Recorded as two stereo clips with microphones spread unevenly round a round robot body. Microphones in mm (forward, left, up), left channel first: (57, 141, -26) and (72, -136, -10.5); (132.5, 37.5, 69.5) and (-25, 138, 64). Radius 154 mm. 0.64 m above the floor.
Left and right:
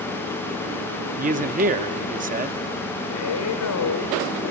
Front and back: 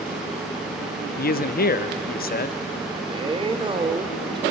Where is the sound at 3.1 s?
85° left, 2.5 m.